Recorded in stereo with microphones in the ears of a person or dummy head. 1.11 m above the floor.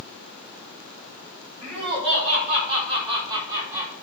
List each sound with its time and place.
1.6 s laughter: 30° right (ahead or behind), 3.5 m; by 3.9 s 20° right (ahead or behind), 2 m